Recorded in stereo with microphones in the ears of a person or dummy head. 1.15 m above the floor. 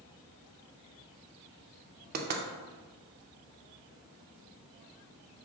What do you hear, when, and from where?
2.1 s knocking: 50° right (ahead or behind), 0.6 m